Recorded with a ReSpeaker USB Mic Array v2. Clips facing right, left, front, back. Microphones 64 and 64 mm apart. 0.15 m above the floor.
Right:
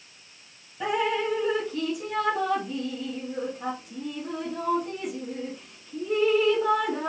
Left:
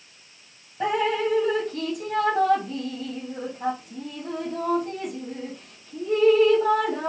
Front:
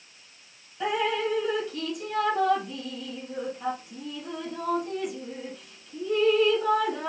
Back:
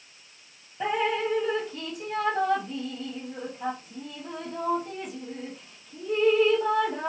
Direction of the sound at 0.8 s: 125° left.